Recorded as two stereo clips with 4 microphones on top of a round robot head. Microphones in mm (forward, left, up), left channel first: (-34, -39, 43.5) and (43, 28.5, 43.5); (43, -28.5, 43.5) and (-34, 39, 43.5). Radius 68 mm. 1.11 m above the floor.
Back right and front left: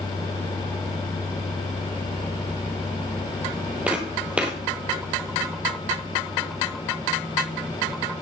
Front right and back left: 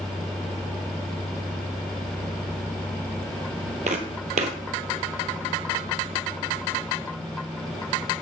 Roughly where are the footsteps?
Behind left.